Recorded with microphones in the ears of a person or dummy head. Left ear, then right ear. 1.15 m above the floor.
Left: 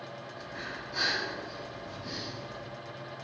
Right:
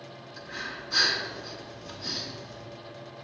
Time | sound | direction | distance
0.4 | breathing | 70° right (ahead or behind) | 3 m